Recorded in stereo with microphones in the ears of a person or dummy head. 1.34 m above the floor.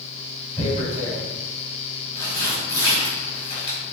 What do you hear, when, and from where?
0.6 s tearing paper: 25° left (ahead or behind), 1.7 m